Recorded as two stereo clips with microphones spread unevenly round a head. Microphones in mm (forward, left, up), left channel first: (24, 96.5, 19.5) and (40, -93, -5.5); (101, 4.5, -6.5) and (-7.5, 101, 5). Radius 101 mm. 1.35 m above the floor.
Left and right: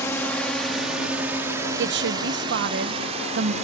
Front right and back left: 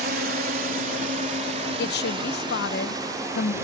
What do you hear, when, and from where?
0.0 s a drone: 175° left; by 3.6 s 145° right
1.8 s a woman speaking: 55° right